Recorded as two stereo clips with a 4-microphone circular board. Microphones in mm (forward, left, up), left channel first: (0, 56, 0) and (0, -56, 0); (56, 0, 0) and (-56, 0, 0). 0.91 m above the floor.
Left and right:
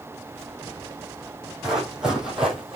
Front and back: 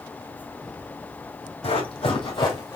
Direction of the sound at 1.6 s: 5° right.